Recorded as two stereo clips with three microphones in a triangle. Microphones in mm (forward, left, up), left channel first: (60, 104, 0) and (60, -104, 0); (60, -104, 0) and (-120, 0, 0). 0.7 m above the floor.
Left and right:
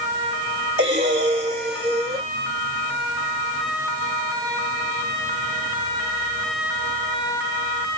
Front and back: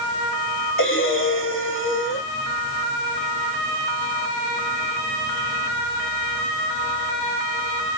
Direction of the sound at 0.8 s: 30° right.